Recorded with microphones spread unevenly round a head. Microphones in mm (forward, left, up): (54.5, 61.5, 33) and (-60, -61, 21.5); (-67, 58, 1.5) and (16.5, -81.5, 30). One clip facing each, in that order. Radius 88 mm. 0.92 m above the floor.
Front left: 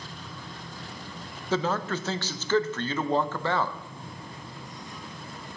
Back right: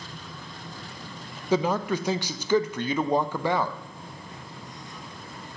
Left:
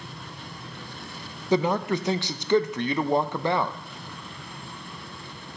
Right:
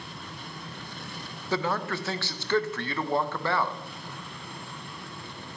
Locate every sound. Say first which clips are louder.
1.5 s a man speaking: back right 3 dB, left 6 dB; 165° left, 0.5 m